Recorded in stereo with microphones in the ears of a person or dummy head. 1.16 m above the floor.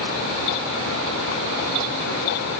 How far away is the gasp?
No gasp in this recording.